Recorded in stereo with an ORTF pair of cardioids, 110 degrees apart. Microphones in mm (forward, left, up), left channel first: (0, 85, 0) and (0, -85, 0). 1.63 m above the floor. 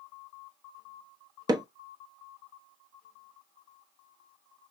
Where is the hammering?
25° right, 1.1 m.